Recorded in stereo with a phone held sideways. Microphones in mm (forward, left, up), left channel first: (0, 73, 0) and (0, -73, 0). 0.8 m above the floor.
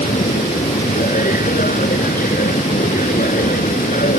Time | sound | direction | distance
0.0 | a machine running | 75° left (ahead or behind) | ?